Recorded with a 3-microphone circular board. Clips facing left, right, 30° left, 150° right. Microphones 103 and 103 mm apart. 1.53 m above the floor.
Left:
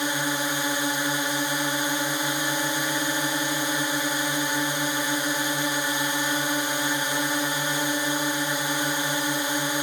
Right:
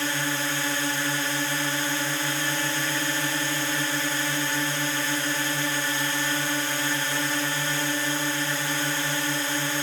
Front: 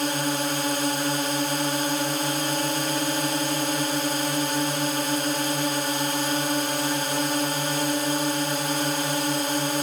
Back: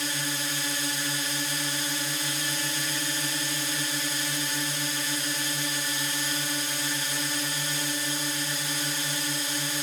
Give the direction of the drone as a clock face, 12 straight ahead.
11 o'clock.